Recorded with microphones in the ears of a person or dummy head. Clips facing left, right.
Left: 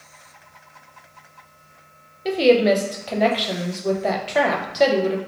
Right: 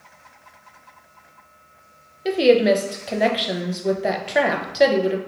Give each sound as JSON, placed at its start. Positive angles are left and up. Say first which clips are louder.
{"t": 2.2, "sound": "a woman speaking", "louder": "even", "side_deg": -10, "distance_m": 0.5}